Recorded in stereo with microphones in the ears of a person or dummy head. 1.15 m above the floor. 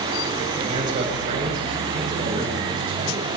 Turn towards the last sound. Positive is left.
turn(degrees=-40)  # may be behind; listen again after turning